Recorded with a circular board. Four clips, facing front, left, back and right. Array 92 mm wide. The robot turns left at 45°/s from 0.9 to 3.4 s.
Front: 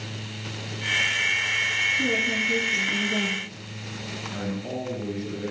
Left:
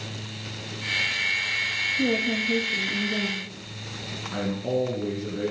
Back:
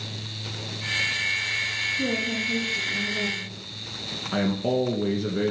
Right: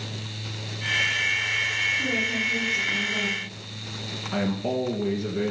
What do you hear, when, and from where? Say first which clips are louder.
1.9 s a woman speaking: left 7 dB, even; 105° left, 7 m; by 3.5 s 35° left, 7 m
4.3 s a man speaking: right 1 dB, back 8 dB; 165° right, 2.5 m